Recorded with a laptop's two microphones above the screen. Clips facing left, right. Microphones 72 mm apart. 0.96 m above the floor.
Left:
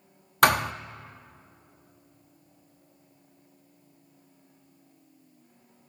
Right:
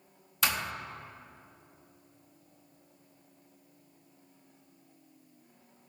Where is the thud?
70° left (ahead or behind), 0.7 m.